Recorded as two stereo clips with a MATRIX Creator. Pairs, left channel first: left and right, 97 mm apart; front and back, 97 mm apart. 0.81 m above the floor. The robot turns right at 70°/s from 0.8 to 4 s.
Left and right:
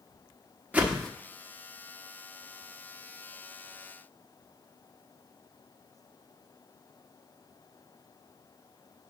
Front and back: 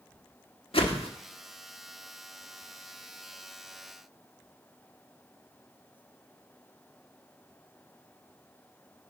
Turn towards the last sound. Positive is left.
turn(degrees=-150)